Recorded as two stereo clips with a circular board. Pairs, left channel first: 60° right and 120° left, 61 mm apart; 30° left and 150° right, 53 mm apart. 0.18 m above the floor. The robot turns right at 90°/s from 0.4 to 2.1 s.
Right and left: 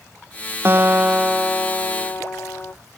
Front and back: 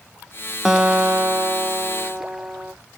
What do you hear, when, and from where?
0.7 s a guitar: 135° left, 0.5 m; by 2.7 s 95° right, 0.5 m